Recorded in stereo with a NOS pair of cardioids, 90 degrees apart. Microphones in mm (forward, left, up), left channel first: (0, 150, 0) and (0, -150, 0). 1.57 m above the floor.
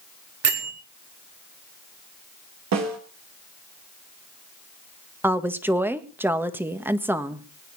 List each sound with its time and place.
0.4 s a bell: 55° right, 4 m
2.7 s a snare drum: 65° right, 3.5 m
5.2 s a woman speaking: 5° right, 1.7 m